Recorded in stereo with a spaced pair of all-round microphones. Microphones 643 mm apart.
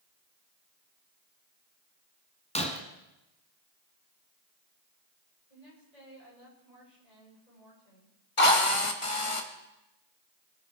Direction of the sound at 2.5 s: 10° left (ahead or behind).